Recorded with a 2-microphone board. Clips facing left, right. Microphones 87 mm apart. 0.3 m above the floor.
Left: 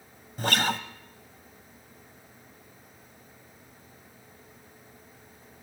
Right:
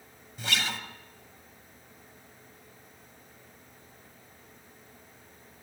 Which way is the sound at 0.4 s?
45° left (ahead or behind).